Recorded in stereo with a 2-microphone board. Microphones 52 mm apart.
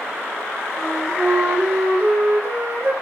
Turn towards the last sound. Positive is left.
turn(degrees=-45)  # may be behind; listen again after turning